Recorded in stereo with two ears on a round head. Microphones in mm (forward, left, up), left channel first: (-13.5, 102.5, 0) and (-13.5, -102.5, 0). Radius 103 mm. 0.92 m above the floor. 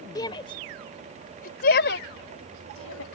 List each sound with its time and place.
0.1 s a shout: 20° left (ahead or behind); by 3.0 s 70° left (ahead or behind)